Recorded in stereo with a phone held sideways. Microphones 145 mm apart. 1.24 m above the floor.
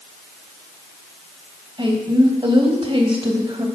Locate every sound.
1.8 s a woman speaking: 35° right (ahead or behind), 1.1 m